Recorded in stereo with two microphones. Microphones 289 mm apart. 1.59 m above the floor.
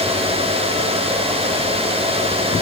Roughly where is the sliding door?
I don't hear a sliding door.